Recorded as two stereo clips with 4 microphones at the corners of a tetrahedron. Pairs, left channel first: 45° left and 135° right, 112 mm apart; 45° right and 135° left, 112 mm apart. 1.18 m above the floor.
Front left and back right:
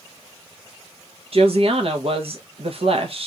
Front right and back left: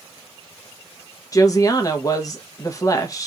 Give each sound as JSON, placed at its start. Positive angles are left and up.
{"t": 1.3, "sound": "a woman speaking", "azimuth_deg": -105, "distance_m": 1.0}